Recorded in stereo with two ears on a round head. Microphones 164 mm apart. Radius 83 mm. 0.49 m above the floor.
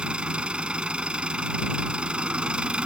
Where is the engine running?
5° right (ahead or behind).